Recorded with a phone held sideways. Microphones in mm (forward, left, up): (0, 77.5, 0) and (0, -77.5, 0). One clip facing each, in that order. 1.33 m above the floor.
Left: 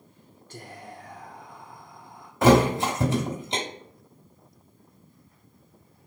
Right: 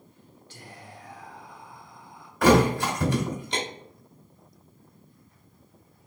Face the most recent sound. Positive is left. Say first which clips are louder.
# left 1 dB
turn(degrees=25)  # may be behind; listen again after turning